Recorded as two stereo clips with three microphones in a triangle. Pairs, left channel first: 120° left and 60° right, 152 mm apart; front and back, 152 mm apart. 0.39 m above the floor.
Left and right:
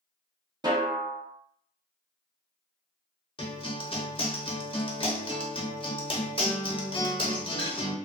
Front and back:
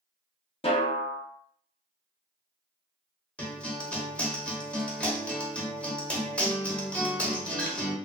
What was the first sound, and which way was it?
A snare drum, 15° right.